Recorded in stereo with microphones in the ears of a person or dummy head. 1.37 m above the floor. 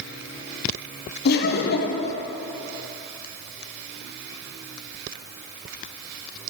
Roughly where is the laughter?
Left.